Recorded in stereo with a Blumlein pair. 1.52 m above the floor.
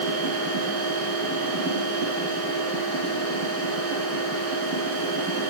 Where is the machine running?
40° right, 6.5 m.